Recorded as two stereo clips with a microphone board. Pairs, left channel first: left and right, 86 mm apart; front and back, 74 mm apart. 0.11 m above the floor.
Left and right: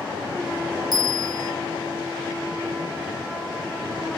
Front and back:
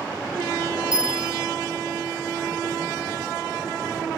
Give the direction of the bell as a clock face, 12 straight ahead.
4 o'clock.